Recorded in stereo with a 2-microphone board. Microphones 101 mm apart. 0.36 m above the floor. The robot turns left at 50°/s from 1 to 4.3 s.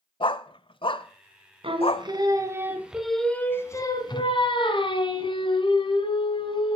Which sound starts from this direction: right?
Singing, at 1.6 s.